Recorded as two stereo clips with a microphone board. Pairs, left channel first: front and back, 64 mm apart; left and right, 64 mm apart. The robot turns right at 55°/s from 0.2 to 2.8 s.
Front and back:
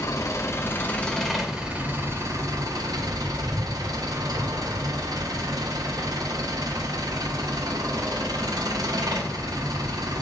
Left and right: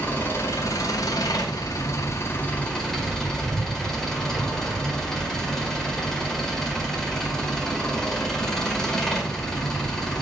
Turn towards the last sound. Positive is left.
turn(degrees=170)